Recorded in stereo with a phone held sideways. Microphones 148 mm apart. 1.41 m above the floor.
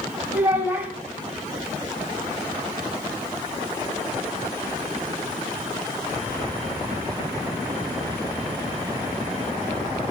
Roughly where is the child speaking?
Centre.